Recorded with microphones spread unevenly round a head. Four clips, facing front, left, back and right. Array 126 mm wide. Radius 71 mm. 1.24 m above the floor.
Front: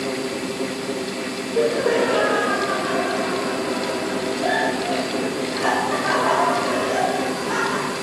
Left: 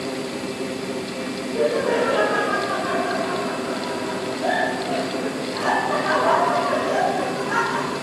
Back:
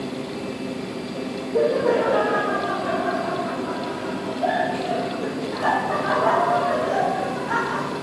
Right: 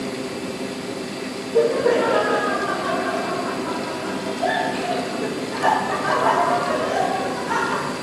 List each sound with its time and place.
1.5 s laughter: 145° right, 1.7 m; by 7.9 s 120° right, 5 m